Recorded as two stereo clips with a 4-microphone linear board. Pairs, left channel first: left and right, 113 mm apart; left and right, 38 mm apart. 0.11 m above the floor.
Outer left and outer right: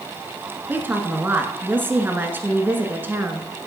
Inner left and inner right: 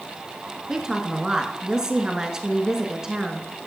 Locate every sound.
0.7 s a woman speaking: 20° right (ahead or behind), 1.2 m